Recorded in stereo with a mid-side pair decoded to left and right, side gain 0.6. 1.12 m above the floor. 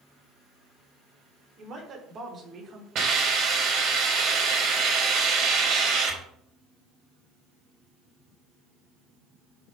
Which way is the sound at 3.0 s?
55° right.